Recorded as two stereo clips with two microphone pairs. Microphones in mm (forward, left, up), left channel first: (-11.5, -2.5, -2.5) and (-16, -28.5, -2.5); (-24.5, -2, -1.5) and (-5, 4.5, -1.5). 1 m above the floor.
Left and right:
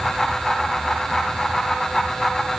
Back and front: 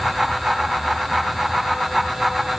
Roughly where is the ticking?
I don't hear ticking.